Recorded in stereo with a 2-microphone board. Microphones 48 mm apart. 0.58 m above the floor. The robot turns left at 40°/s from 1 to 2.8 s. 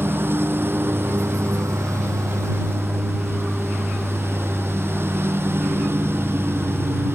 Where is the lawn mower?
50° right; by 7.2 s 125° right.